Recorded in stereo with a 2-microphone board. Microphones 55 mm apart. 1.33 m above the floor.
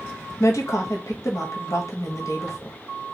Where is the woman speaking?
70° left (ahead or behind), 1.2 m.